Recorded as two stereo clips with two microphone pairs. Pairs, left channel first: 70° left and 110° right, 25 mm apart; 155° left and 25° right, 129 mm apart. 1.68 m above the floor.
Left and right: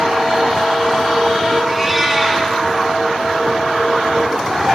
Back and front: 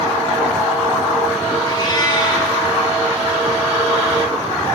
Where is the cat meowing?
150° left, 1.8 m.